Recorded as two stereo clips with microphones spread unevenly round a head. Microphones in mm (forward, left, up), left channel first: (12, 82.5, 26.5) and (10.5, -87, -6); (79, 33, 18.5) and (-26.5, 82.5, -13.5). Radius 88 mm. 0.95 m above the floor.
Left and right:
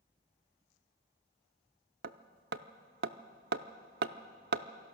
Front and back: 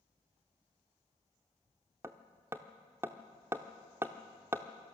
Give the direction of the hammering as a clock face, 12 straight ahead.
4 o'clock.